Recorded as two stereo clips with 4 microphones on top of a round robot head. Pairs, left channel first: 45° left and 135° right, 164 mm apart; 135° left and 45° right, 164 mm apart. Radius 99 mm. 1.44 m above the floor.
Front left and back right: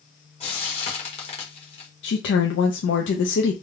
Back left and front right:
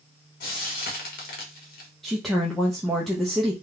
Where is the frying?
100° left, 1.1 m.